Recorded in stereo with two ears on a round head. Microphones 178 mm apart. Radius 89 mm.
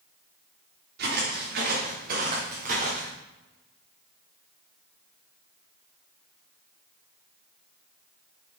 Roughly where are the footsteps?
Right.